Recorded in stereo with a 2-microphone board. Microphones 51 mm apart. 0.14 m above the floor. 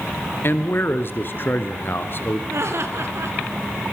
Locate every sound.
0.4 s a man speaking: 45° left (ahead or behind), 1.7 m
2.5 s laughter: 65° right (ahead or behind), 3.5 m